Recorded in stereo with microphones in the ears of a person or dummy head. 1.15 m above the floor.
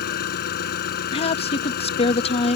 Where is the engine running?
55° left (ahead or behind).